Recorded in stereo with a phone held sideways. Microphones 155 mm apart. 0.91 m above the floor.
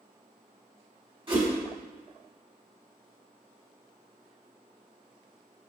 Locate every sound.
1.3 s a whoosh: 30° right (ahead or behind), 2.5 m